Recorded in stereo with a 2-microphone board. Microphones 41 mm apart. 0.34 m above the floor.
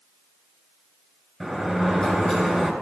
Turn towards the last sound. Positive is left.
turn(degrees=5)  # may be behind; listen again after turning